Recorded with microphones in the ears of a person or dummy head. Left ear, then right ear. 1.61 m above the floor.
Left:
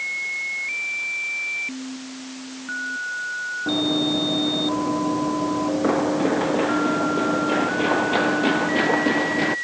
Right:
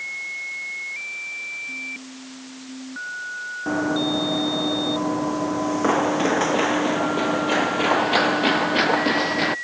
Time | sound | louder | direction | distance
3.7 | running footsteps | even | 70° right (ahead or behind) | ?